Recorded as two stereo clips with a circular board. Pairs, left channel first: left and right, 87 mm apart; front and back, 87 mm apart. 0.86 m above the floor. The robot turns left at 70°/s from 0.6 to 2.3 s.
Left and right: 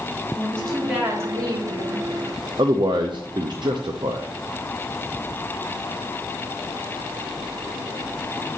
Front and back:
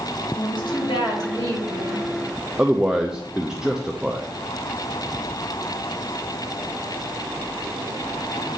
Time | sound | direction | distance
0.4 | a woman speaking | 10° left | 2 m
2.6 | a man speaking | 100° right | 0.5 m